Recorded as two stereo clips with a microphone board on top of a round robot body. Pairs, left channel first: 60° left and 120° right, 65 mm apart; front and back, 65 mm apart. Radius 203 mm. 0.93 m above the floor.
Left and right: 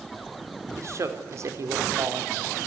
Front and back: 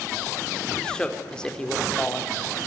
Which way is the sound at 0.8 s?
80° right.